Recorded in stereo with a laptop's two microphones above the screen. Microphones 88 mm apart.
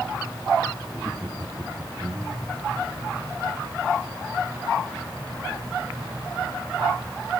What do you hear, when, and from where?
0.9 s laughter: 10° right (ahead or behind), 2 m